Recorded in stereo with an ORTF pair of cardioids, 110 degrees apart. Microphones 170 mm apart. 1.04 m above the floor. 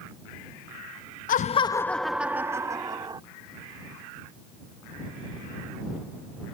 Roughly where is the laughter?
Ahead left.